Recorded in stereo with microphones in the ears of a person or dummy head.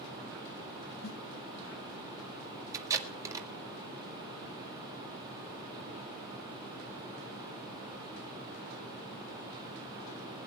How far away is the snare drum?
About 2.5 m.